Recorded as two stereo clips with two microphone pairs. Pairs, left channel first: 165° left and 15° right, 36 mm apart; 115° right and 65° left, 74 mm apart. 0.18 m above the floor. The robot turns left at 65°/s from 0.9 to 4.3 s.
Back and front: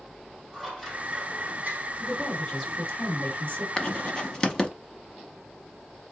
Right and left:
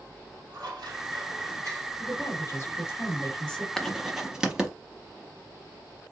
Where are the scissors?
75° left, 2.5 m; by 1.9 s 10° left, 2.5 m.